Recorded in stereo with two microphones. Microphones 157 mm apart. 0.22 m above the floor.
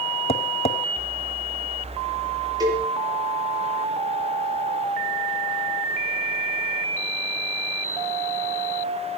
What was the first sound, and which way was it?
Tapping, 45° left (ahead or behind).